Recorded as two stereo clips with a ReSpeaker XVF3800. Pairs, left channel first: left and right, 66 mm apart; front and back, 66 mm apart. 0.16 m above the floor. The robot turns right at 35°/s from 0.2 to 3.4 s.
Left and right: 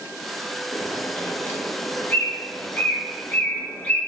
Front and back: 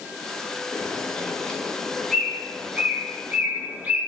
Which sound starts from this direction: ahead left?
A bird, at 0.7 s.